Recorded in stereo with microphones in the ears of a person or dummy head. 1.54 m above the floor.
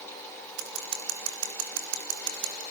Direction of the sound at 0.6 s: 85° right.